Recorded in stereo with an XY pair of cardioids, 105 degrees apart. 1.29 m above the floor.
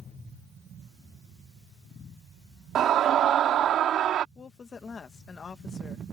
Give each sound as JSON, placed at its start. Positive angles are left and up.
{"t": 2.8, "sound": "a scream", "azimuth_deg": -65}
{"t": 4.3, "sound": "a woman speaking", "azimuth_deg": 40}